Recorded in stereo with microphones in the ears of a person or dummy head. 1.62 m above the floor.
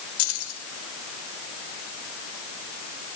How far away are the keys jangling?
About 5 m.